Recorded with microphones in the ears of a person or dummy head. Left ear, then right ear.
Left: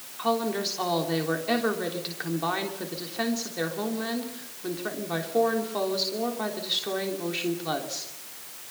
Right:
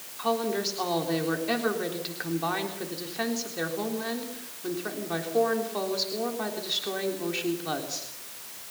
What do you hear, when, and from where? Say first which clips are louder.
0.2 s a woman speaking: left 1 dB; 10° left (ahead or behind), 3.5 m